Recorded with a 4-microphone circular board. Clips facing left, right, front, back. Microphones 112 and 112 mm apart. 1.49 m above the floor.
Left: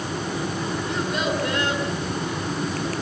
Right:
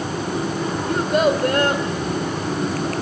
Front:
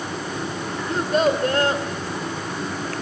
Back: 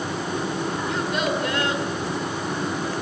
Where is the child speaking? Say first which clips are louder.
Right 9 dB, front 8 dB; 50° right, 3.5 m.